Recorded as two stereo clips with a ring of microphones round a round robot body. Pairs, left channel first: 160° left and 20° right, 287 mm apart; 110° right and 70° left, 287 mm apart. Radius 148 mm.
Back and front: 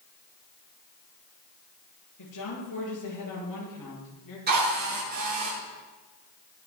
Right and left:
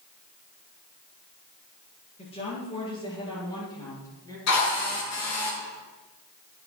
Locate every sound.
2.2 s a woman speaking: straight behind, 8 m; by 4.4 s 170° left, 10 m
4.5 s a drill: 80° right, 8 m